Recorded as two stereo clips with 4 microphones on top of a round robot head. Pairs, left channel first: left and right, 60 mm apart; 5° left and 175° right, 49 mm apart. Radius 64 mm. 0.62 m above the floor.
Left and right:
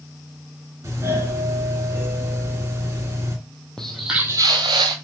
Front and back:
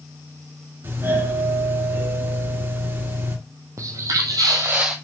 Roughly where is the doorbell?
Behind right.